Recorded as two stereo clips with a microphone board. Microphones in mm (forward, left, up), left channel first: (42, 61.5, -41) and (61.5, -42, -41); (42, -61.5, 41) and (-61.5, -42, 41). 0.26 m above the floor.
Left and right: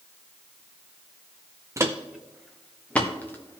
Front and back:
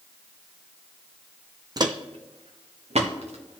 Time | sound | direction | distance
1.8 | footsteps | 140° right | 0.7 m